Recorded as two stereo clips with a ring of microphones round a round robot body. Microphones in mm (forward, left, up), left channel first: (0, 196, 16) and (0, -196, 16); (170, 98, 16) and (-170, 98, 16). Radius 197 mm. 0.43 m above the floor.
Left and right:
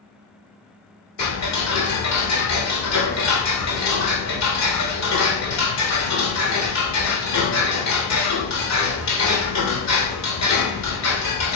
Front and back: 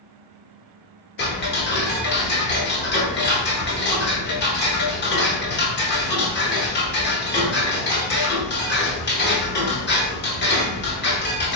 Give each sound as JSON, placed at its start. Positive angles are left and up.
{"t": 1.2, "sound": "ticking", "azimuth_deg": 55, "distance_m": 1.1}